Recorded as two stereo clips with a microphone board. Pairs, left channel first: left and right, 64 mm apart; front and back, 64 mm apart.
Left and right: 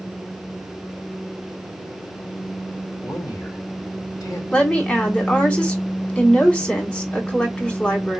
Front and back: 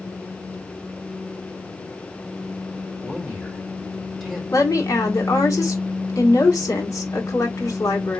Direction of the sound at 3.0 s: 90° left.